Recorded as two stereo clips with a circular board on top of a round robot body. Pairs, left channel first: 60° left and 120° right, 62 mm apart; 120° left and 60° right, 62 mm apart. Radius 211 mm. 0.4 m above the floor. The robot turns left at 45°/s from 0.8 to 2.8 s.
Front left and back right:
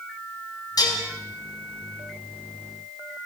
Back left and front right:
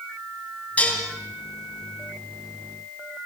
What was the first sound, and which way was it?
Dishes clattering, 50° left.